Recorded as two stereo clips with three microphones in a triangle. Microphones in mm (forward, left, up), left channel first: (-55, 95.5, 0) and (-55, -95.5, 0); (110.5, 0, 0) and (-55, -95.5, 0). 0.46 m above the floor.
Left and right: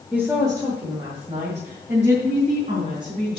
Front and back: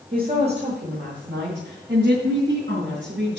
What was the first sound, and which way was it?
A woman speaking, 170° right.